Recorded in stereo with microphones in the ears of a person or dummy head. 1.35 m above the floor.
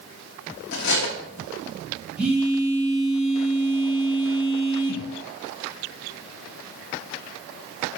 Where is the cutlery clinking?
60° left (ahead or behind), 1.2 m.